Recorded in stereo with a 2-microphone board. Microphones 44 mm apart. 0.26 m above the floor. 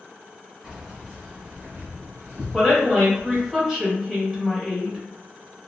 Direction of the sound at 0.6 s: 5° right (ahead or behind).